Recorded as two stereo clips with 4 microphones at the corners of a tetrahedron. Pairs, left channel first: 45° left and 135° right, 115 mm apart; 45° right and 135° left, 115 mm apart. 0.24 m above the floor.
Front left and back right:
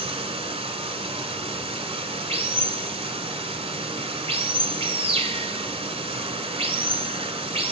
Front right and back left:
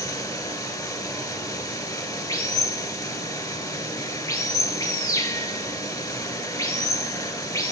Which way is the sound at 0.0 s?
100° right.